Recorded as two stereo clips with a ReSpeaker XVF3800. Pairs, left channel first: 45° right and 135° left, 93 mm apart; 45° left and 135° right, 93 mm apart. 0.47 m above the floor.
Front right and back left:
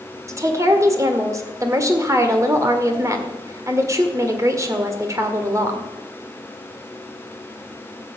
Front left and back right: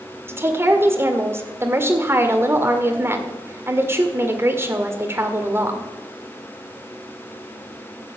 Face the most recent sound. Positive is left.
turn(degrees=175)